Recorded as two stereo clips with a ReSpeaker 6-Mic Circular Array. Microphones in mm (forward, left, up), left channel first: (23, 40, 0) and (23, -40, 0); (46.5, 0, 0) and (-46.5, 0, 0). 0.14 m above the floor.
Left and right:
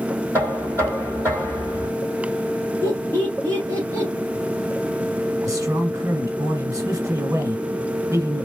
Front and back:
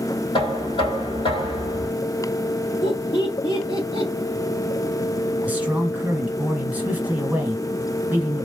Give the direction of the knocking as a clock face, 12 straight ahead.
1 o'clock.